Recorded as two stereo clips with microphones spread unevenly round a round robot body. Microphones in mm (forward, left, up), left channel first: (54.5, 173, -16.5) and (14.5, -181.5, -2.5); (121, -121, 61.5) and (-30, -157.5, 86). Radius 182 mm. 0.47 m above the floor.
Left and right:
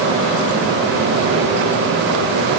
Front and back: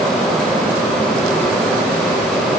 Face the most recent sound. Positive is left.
No sound to turn to.